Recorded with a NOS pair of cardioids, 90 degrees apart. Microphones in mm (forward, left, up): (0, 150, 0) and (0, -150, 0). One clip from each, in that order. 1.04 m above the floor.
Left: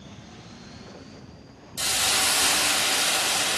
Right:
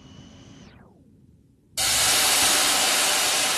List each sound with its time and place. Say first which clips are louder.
1.8 s a hiss: right 2 dB; 25° right, 1.0 m